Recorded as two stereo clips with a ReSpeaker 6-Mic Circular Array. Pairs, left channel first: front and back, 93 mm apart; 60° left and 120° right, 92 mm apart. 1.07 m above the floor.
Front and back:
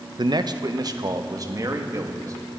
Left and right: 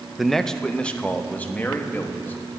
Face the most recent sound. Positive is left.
turn(degrees=130)